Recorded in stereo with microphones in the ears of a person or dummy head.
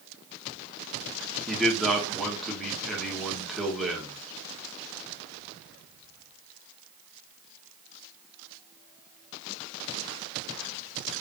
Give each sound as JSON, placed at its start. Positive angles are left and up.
{"t": 1.5, "sound": "a man speaking", "side_deg": 0, "distance_m": 1.2}